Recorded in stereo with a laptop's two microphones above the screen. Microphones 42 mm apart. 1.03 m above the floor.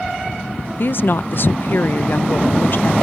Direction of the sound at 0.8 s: 50° left (ahead or behind).